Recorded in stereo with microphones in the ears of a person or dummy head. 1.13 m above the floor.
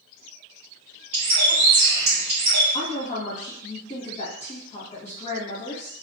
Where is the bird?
40° right (ahead or behind), 1.0 m.